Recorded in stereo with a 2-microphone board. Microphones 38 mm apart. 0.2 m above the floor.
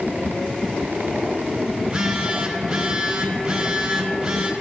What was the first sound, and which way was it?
A phone buzzing, 20° right (ahead or behind).